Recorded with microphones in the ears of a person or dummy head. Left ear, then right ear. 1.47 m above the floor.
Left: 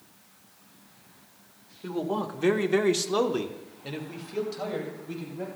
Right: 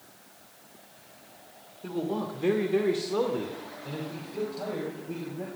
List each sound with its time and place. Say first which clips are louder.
1.8 s a man speaking: left 2 dB; 15° left (ahead or behind), 1.7 m; by 5.5 s 45° left (ahead or behind), 3.5 m